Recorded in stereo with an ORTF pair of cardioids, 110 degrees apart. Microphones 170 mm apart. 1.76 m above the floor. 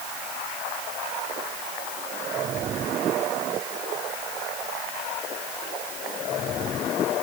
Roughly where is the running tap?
I don't hear a running tap.